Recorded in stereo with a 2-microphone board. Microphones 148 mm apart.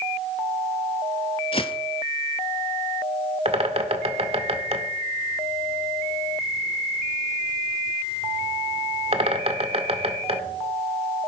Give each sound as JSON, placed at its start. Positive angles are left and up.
{"t": 1.5, "sound": "footsteps", "side_deg": 40, "distance_m": 0.9}
{"t": 3.5, "sound": "a bird", "side_deg": -40, "distance_m": 1.6}